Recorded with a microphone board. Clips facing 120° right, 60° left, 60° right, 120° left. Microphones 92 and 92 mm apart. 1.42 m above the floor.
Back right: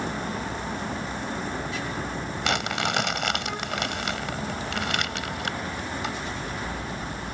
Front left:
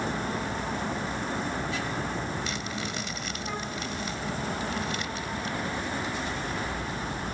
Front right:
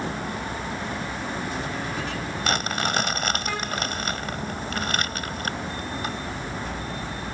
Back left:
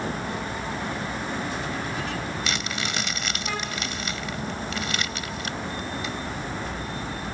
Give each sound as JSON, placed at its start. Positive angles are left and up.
{"t": 2.4, "sound": "crumpling", "azimuth_deg": -105}